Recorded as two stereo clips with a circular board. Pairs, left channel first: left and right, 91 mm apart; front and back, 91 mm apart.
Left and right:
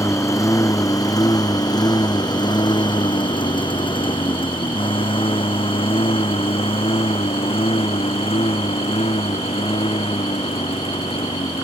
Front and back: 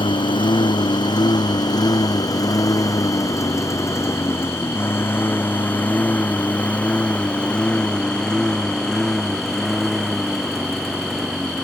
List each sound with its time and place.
0.0 s a lawn mower: 30° left; by 11.7 s 95° left